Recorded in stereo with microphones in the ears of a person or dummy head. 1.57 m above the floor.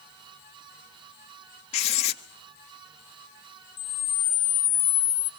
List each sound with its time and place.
1.7 s writing: 35° left (ahead or behind), 1.0 m
3.8 s a camera shutter: 25° left (ahead or behind), 0.7 m